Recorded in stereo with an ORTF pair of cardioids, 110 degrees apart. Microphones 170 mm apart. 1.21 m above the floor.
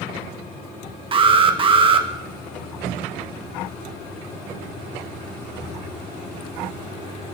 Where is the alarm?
30° right, 1.3 m.